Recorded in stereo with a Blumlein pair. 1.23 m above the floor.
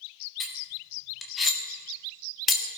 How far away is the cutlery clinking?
About 1.7 m.